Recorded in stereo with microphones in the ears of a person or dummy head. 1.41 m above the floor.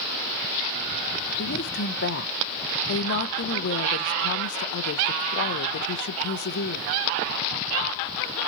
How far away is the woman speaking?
About 0.9 m.